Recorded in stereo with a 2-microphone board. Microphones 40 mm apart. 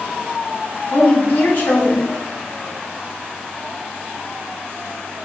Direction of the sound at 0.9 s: 55° left (ahead or behind).